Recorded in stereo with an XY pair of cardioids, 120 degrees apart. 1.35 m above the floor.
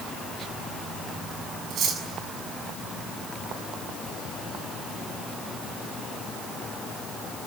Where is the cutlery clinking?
65° right, 6.5 m.